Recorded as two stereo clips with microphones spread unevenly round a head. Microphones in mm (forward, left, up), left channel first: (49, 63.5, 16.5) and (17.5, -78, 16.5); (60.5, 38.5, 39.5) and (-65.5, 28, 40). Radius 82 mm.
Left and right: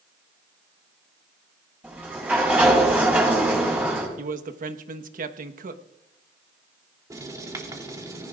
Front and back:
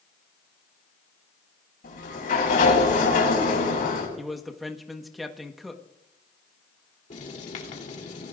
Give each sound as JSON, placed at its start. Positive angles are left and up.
{"t": 1.8, "sound": "a sliding door", "azimuth_deg": -25, "distance_m": 6.5}
{"t": 4.2, "sound": "a man speaking", "azimuth_deg": -85, "distance_m": 1.2}
{"t": 7.1, "sound": "writing", "azimuth_deg": -35, "distance_m": 3.0}